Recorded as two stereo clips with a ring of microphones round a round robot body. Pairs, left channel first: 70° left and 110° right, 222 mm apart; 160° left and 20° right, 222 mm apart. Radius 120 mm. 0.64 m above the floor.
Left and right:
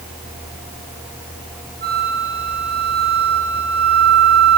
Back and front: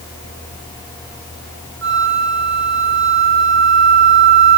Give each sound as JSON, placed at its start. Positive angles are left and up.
{"t": 1.8, "sound": "a flute", "azimuth_deg": -60, "distance_m": 7.5}